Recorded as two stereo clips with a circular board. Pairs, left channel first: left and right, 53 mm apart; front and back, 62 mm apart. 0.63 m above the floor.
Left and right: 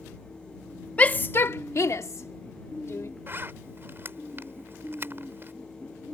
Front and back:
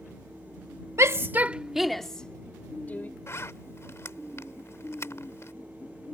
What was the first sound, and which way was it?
A shout, 150° left.